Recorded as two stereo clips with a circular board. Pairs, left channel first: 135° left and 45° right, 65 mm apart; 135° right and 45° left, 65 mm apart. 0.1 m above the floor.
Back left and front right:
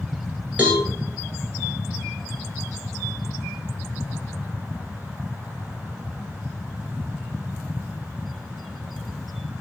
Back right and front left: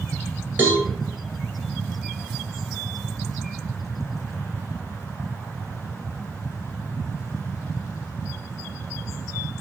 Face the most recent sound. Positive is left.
turn(degrees=5)